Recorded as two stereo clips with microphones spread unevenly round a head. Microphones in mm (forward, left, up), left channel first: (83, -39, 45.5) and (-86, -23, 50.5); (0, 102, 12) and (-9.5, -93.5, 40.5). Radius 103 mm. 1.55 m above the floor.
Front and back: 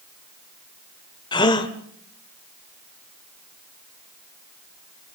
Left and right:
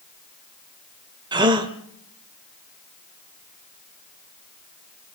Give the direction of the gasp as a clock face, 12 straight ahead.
2 o'clock.